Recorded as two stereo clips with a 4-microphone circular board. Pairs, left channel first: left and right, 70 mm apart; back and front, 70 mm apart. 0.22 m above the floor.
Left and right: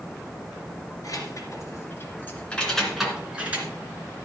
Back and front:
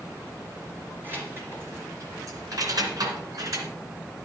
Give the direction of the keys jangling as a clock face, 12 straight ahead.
10 o'clock.